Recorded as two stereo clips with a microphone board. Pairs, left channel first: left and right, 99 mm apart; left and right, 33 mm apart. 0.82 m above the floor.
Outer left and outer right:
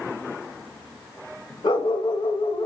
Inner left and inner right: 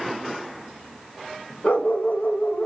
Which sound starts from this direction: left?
A dog barking, at 1.6 s.